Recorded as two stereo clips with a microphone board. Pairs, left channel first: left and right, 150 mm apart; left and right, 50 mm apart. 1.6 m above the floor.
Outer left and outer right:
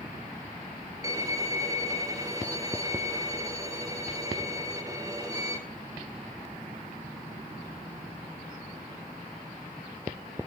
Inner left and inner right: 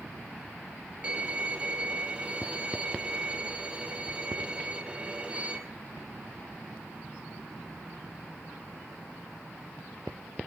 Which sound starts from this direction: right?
A violin, at 1.0 s.